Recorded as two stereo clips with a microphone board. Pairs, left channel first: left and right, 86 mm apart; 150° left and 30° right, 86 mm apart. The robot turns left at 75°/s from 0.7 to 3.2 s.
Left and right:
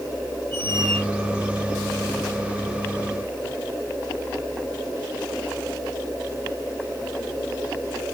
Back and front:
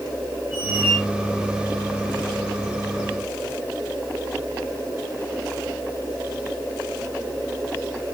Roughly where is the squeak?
Right.